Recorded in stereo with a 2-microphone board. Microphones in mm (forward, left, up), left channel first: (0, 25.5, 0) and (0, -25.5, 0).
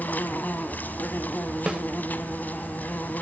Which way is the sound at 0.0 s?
35° left (ahead or behind).